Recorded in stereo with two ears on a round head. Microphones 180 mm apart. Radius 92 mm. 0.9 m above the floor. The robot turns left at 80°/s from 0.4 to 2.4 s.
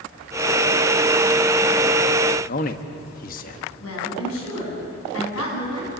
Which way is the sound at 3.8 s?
85° left.